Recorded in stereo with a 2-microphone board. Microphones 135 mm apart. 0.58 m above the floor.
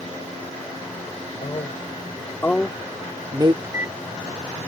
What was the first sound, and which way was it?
A man speaking, 45° left (ahead or behind).